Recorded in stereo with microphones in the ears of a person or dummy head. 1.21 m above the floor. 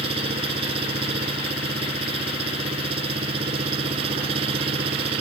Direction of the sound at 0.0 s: 30° right (ahead or behind).